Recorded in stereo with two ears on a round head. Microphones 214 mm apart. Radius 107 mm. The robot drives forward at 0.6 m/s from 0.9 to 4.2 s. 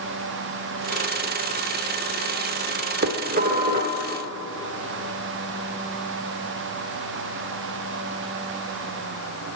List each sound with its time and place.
3.0 s dishes clattering: 45° right (ahead or behind), 0.8 m; by 4.0 s 30° right (ahead or behind), 1.1 m